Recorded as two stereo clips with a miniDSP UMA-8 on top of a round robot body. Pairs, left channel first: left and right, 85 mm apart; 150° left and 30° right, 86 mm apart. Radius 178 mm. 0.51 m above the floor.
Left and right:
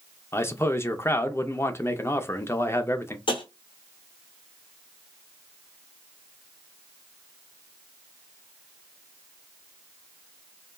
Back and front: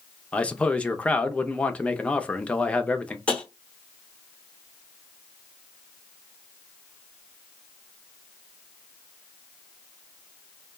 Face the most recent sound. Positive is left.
turn(degrees=75)